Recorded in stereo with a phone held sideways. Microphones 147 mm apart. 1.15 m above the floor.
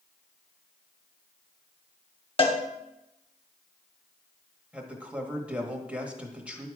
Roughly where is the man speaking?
Centre.